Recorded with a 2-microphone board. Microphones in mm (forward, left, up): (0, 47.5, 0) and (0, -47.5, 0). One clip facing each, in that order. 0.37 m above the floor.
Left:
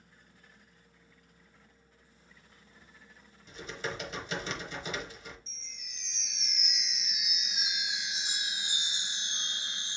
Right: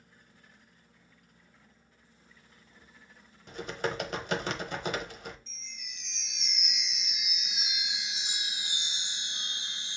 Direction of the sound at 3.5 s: 60° right (ahead or behind).